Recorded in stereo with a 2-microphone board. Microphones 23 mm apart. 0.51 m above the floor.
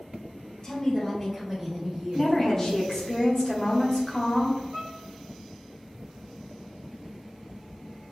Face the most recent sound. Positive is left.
turn(degrees=-45)  # may be behind; listen again after turning